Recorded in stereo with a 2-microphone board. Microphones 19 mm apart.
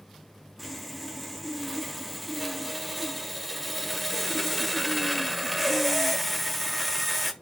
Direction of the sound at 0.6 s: 5° left (ahead or behind).